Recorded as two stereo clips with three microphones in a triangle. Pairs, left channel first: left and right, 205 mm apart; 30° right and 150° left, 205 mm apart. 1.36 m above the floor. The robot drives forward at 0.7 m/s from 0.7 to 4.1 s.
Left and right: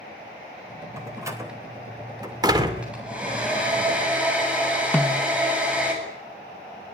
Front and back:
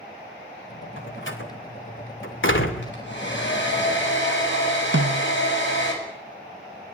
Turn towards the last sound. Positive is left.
turn(degrees=170)